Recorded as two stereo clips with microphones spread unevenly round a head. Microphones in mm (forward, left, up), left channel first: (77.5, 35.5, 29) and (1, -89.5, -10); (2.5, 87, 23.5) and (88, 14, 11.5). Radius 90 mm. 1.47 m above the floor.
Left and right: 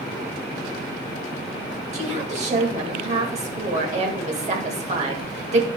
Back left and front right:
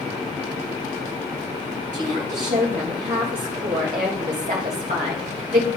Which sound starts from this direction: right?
A woman speaking, at 1.9 s.